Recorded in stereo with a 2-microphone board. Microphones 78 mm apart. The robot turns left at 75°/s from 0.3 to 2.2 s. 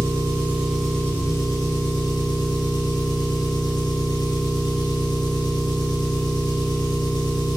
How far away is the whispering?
I don't hear whispering.